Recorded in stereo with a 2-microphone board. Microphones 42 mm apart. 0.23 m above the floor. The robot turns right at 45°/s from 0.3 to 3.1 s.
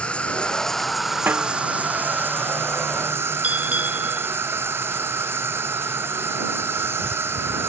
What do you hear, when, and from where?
0.0 s an insect: 150° left; by 7.7 s 85° right
1.3 s a snare drum: 50° right (ahead or behind); by 1.5 s 40° right (ahead or behind)
3.4 s a bell: 35° right (ahead or behind)